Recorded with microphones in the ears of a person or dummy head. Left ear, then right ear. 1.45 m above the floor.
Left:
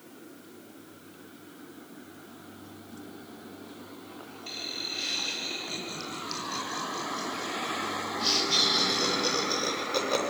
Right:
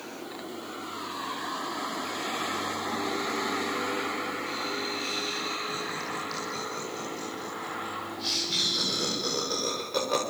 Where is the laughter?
25° left (ahead or behind), 9.5 m; by 10.2 s 10° left (ahead or behind), 6 m.